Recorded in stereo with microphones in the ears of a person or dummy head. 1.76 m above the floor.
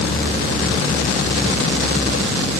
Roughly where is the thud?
No thud in this recording.